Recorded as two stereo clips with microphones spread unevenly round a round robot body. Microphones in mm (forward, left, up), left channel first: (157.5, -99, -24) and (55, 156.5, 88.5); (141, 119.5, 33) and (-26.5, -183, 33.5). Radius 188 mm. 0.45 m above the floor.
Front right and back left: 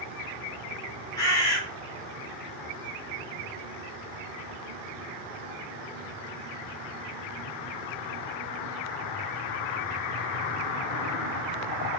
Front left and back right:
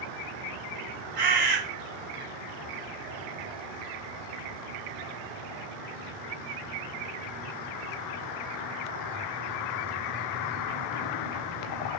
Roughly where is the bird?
Right.